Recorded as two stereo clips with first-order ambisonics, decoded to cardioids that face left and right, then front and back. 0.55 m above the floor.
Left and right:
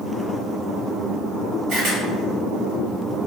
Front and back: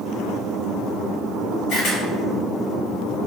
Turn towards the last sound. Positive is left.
turn(degrees=-40)